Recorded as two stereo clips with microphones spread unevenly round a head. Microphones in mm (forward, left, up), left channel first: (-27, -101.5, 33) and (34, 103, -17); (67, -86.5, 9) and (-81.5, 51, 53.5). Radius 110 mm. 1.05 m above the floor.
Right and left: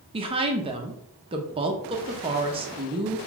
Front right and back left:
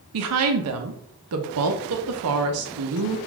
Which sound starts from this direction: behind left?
A woman speaking, at 0.1 s.